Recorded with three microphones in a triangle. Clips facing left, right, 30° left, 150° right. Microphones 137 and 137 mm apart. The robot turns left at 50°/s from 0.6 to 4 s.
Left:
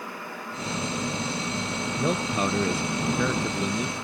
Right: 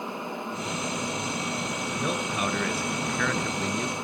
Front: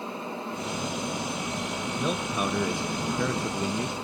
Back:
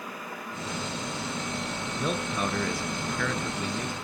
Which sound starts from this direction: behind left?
A man speaking, at 1.9 s.